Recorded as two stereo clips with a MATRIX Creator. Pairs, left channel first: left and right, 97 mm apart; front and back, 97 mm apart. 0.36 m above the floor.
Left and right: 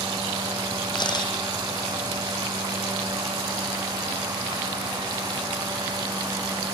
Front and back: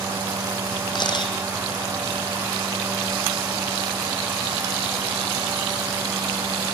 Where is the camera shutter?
45° left, 2.5 m.